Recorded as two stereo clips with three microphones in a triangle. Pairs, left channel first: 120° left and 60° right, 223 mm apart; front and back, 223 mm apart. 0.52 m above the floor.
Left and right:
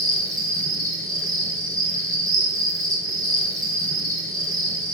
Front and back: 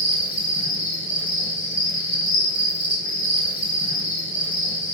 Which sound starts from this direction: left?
An insect, at 0.0 s.